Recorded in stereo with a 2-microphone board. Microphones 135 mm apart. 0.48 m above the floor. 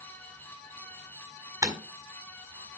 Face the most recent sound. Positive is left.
turn(degrees=-25)  # may be behind; listen again after turning